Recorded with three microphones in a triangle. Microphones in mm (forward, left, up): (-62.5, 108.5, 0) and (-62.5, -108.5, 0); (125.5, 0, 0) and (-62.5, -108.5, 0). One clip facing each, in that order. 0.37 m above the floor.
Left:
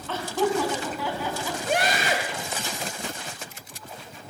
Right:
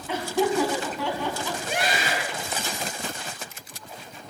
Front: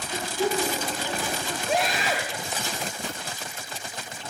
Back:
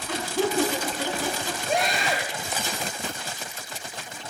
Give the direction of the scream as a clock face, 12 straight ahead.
8 o'clock.